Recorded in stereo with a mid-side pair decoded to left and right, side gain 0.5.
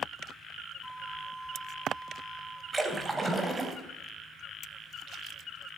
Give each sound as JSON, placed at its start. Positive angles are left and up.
{"t": 0.8, "sound": "a flute", "azimuth_deg": 0, "distance_m": 1.0}
{"t": 2.7, "sound": "a splash", "azimuth_deg": -20, "distance_m": 3.0}